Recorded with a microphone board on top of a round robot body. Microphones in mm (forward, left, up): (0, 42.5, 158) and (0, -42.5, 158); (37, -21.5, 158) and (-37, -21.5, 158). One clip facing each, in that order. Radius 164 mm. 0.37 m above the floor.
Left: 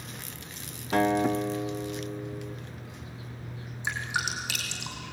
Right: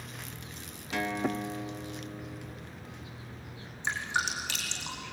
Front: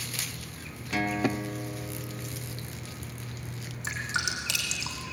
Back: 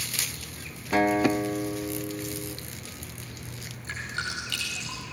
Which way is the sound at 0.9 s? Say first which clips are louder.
Left 8 dB, back 6 dB; 130° left.